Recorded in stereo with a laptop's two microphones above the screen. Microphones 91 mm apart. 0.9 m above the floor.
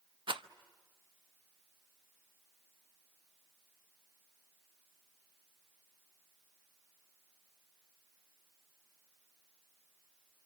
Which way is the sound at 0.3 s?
70° right (ahead or behind).